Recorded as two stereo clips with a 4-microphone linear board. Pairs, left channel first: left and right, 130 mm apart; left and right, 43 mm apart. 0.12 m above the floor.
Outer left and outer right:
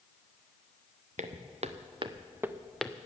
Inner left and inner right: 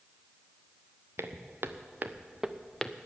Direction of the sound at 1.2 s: 70° right (ahead or behind).